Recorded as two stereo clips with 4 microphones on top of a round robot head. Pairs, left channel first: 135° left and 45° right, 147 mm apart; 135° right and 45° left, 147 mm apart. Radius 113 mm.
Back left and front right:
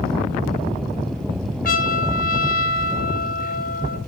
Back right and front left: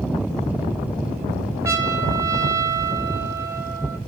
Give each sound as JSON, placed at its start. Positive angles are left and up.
{"t": 1.6, "sound": "a trumpet", "azimuth_deg": 120, "distance_m": 2.5}